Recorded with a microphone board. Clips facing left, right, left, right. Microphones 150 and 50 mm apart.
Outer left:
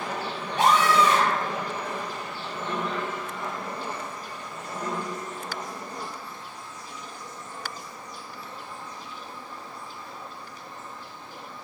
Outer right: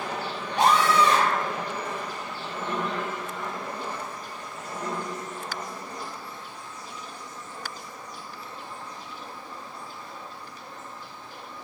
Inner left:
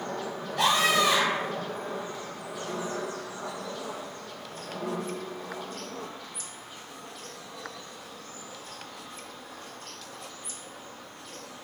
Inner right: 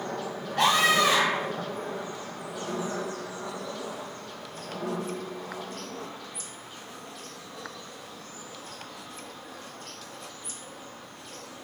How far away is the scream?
About 3 m.